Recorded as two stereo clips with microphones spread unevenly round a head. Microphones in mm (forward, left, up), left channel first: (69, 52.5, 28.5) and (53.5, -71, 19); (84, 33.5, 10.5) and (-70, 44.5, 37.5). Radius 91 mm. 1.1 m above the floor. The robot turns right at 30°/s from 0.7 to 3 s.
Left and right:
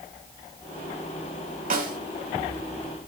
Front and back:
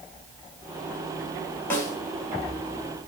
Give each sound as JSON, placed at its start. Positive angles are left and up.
{"t": 1.7, "sound": "a snare drum", "azimuth_deg": -85, "distance_m": 3.5}